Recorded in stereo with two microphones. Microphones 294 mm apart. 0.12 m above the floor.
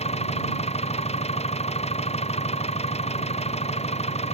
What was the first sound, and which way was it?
An engine running, 20° left (ahead or behind).